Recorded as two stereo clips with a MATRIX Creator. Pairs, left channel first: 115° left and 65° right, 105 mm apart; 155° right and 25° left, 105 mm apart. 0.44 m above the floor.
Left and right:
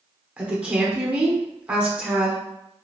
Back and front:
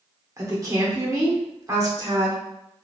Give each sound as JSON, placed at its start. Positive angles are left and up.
{"t": 0.4, "sound": "a woman speaking", "azimuth_deg": 0, "distance_m": 0.9}